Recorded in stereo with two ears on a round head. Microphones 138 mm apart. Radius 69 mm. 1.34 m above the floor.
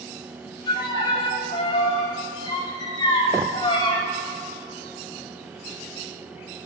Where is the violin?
30° left (ahead or behind), 4 m.